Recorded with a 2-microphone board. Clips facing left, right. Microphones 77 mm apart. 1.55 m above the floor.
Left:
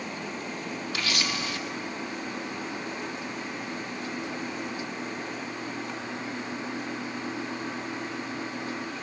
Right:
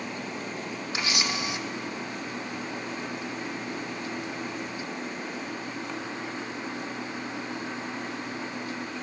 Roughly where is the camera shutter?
Right.